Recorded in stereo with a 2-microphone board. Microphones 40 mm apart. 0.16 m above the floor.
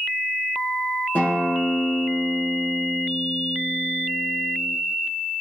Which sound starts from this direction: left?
A guitar, at 1.1 s.